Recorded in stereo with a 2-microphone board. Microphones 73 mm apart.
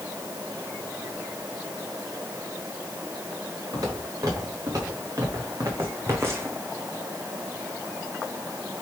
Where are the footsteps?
55° right (ahead or behind), 5 m; by 6.6 s 30° right (ahead or behind), 1.8 m.